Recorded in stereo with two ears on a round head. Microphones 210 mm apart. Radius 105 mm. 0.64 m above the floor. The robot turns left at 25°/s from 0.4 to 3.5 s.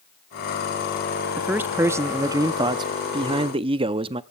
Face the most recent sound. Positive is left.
turn(degrees=-25)  # may be behind; listen again after turning